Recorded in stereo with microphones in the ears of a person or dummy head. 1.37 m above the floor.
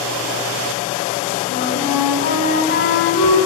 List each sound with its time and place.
1.5 s a flute: 55° left (ahead or behind), 2.5 m